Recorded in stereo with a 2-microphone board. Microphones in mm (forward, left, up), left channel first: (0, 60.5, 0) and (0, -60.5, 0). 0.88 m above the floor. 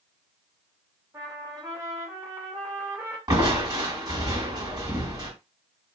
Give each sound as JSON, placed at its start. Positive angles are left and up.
{"t": 1.1, "sound": "a trumpet", "side_deg": -25, "distance_m": 1.3}
{"t": 3.3, "sound": "crushing", "side_deg": -30, "distance_m": 1.9}